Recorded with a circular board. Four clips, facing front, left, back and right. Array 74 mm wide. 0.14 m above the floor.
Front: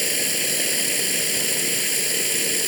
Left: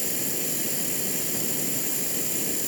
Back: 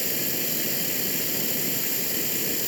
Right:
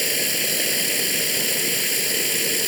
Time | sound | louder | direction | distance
0.0 | running water | right 6 dB, front 4 dB | 55° right | 1.8 m